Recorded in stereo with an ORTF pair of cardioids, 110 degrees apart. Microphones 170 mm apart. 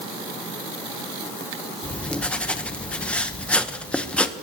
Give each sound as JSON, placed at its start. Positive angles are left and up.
{"t": 1.8, "sound": "writing", "azimuth_deg": 5, "distance_m": 0.9}